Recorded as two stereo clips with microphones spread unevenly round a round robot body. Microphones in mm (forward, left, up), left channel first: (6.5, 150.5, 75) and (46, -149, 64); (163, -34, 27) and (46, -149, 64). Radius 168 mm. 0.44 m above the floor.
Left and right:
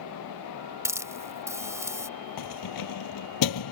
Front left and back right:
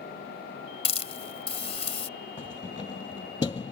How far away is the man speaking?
No man speaking in this recording.